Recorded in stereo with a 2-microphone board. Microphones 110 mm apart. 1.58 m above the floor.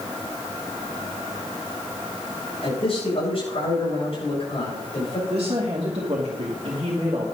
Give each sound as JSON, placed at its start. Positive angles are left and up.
{"t": 2.6, "sound": "a man speaking", "side_deg": 55, "distance_m": 8.0}
{"t": 5.3, "sound": "a woman speaking", "side_deg": -50, "distance_m": 2.5}